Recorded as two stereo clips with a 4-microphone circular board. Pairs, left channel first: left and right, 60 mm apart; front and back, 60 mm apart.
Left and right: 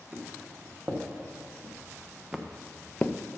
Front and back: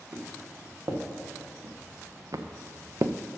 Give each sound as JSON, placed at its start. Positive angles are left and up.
{"t": 0.1, "sound": "footsteps", "azimuth_deg": -140, "distance_m": 2.0}